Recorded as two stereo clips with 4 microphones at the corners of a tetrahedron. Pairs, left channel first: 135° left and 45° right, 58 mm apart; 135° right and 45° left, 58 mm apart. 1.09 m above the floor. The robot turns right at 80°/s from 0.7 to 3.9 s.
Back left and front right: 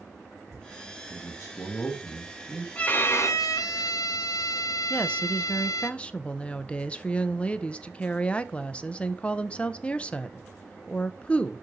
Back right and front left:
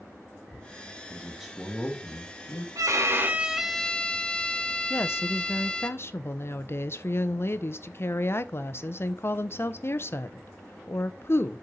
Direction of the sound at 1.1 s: 105° left.